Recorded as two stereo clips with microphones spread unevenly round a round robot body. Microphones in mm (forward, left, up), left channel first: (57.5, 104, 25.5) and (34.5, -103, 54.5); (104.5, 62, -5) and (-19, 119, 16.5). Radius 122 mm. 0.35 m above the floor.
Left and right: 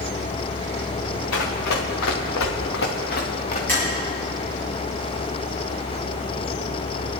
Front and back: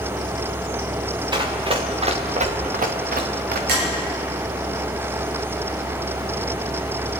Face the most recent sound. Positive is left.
turn(degrees=165)